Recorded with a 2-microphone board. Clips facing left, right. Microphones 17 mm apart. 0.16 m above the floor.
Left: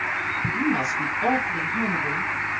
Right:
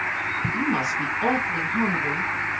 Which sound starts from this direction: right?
A woman speaking, at 0.5 s.